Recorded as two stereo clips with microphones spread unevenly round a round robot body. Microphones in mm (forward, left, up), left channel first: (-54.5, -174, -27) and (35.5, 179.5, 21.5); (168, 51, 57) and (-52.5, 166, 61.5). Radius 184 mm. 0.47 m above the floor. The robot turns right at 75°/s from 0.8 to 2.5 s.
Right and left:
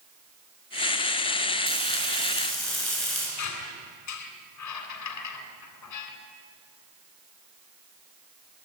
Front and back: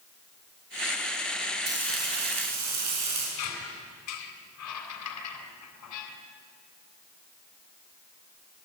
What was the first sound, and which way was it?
Frying, 105° left.